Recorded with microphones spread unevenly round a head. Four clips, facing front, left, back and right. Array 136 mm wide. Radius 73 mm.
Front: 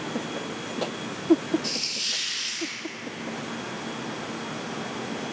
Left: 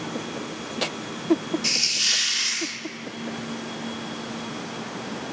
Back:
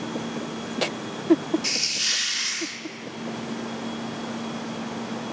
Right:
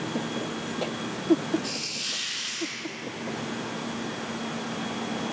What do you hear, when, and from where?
1.6 s a hiss: 105° left, 3 m